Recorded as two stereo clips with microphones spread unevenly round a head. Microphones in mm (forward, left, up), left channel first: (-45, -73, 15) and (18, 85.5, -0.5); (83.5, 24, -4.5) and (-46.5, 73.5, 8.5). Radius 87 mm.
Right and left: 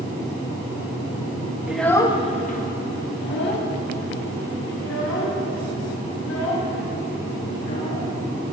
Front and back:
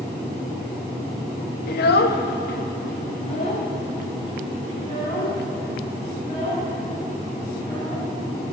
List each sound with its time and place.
1.7 s a child speaking: 15° right, 0.8 m; by 8.1 s 95° right, 6.5 m